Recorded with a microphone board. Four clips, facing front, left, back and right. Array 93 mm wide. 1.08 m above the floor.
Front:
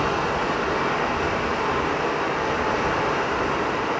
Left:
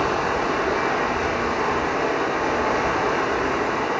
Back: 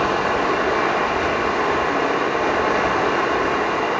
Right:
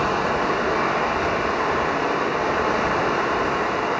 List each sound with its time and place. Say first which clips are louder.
0.0 s running water: right 1 dB, back 4 dB; 175° left, 1.6 m